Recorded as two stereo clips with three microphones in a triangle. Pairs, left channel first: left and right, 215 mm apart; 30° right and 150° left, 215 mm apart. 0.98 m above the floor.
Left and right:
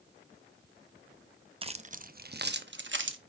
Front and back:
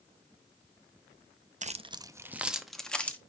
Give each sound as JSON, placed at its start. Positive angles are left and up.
{"t": 1.6, "sound": "keys jangling", "azimuth_deg": -150, "distance_m": 0.6}